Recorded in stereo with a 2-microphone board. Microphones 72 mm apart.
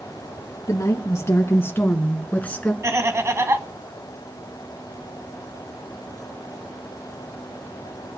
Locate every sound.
0.7 s a woman speaking: 50° left (ahead or behind), 3 m; by 2.7 s 20° left (ahead or behind), 3 m
2.8 s laughter: 40° right (ahead or behind), 2 m